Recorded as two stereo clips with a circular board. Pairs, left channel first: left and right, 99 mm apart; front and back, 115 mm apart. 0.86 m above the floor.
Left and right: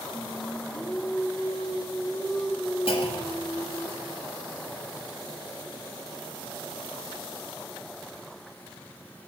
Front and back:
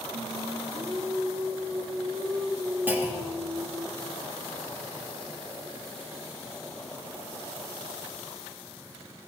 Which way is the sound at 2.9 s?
110° left.